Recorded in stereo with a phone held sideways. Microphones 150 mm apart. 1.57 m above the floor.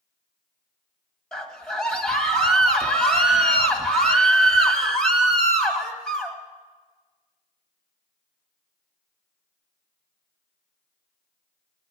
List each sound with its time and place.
1.3 s a scream: 5° left (ahead or behind), 1.8 m